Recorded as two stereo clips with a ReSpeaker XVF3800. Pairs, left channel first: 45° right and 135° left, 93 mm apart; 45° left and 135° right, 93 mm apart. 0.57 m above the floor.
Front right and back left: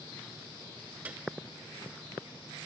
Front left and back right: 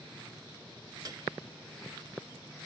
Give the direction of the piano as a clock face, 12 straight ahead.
5 o'clock.